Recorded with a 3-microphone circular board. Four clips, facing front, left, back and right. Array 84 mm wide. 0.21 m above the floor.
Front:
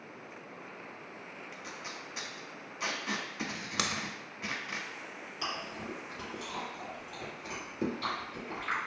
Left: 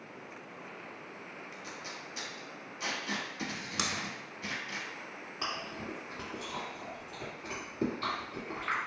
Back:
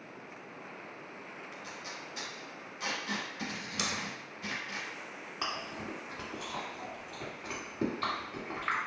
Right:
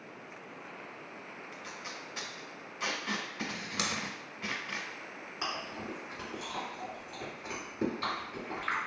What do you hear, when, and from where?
1.5 s tape being pulled: 55° right, 0.8 m
3.8 s scissors: 15° left, 0.5 m
5.4 s chewing: 175° right, 1.6 m